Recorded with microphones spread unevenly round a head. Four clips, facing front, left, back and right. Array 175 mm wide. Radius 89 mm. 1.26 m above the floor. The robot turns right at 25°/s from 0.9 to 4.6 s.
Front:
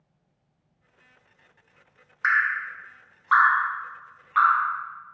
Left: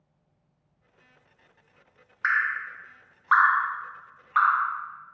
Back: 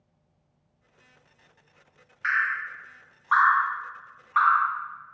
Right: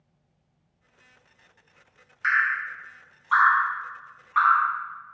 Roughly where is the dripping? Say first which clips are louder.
Right 2 dB, front 3 dB; ahead.